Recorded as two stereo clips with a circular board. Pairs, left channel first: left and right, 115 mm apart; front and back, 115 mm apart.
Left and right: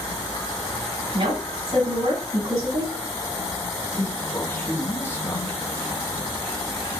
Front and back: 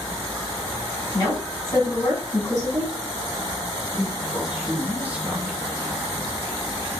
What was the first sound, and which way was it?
An insect, 140° left.